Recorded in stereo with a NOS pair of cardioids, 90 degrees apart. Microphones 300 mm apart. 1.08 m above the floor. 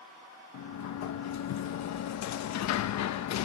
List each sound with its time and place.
0.5 s a sliding door: 65° left, 1.0 m